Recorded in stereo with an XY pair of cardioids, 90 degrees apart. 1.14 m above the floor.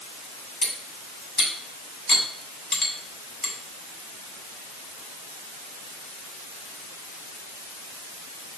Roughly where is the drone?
I don't hear a drone.